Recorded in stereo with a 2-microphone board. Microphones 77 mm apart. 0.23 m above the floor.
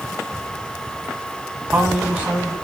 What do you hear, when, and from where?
1.6 s a man speaking: 20° right (ahead or behind), 2 m